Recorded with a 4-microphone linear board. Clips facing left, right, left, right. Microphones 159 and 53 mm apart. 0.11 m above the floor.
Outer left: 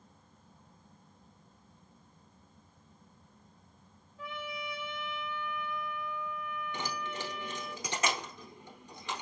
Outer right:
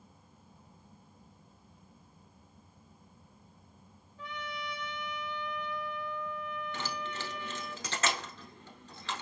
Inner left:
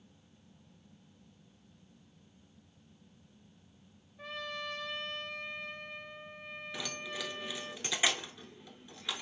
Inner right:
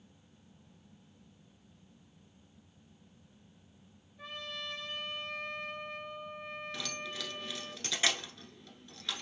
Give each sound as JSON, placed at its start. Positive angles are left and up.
{"t": 4.2, "sound": "a trumpet", "side_deg": 0, "distance_m": 1.6}
{"t": 6.7, "sound": "keys jangling", "side_deg": 15, "distance_m": 0.9}